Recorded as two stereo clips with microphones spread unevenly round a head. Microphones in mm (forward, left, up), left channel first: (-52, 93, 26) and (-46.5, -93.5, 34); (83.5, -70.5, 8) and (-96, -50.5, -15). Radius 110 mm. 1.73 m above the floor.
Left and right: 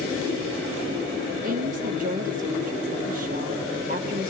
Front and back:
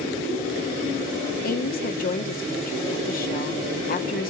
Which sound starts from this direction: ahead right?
A woman speaking, at 1.4 s.